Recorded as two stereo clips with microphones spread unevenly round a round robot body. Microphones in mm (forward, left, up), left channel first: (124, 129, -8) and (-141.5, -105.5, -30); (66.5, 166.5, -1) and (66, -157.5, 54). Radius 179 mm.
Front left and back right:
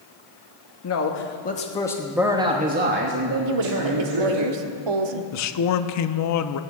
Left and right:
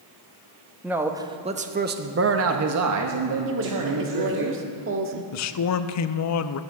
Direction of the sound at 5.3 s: 85° left.